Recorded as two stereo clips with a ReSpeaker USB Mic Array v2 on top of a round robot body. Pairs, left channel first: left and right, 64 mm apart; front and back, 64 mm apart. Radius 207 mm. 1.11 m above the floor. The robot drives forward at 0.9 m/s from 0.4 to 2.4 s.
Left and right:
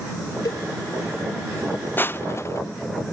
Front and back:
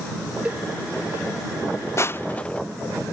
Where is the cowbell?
110° left; by 0.7 s 125° left.